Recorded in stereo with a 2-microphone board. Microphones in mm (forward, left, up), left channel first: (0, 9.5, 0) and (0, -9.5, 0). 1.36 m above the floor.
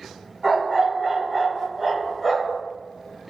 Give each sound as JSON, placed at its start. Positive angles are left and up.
{"t": 0.4, "sound": "a dog barking", "side_deg": -20, "distance_m": 1.7}